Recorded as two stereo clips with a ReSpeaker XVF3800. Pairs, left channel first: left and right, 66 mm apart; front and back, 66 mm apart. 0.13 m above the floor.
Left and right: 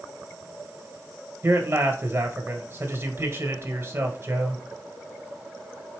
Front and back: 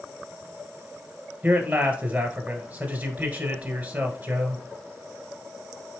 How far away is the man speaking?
About 1.5 m.